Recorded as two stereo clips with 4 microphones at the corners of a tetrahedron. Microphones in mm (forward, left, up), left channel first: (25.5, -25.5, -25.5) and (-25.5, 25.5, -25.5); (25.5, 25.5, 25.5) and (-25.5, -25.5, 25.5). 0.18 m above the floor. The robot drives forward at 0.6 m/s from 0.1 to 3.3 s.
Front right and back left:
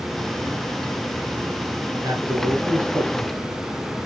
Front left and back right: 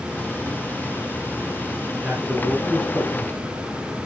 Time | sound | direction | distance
2.0 | a man speaking | 165° left | 2.5 m